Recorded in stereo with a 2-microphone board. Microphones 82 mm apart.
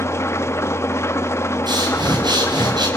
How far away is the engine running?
About 0.9 m.